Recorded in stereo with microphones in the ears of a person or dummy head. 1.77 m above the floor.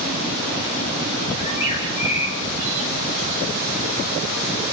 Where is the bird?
40° left (ahead or behind), 6.5 m.